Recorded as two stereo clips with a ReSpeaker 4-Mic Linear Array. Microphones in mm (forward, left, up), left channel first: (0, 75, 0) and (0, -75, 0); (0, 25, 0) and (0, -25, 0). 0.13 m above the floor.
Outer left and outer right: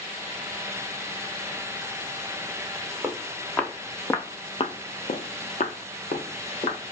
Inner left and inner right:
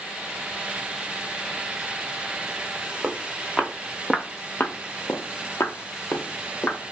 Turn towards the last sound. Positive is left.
turn(degrees=60)  # may be behind; listen again after turning